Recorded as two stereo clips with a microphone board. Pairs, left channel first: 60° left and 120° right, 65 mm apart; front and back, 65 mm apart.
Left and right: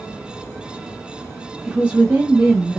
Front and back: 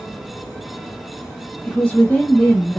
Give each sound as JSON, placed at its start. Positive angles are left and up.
{"t": 1.7, "sound": "a woman speaking", "azimuth_deg": -60, "distance_m": 0.8}